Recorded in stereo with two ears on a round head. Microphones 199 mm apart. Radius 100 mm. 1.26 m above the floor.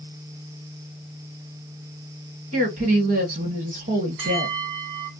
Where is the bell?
65° right (ahead or behind), 1.3 m.